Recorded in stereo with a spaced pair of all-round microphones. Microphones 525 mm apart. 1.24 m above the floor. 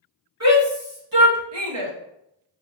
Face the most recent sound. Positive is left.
turn(degrees=-60)  # may be behind; listen again after turning